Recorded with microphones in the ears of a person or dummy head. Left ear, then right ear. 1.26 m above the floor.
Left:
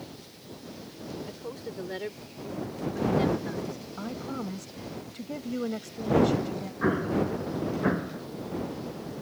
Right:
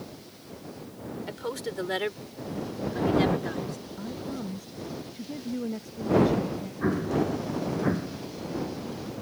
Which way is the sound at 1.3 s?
55° right (ahead or behind).